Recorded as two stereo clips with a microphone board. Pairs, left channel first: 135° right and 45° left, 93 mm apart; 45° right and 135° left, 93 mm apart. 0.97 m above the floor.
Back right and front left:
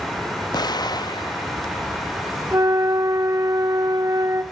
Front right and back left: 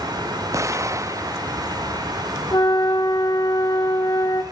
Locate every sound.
0.5 s an explosion: 170° right, 0.5 m
2.5 s a flute: 5° right, 1.3 m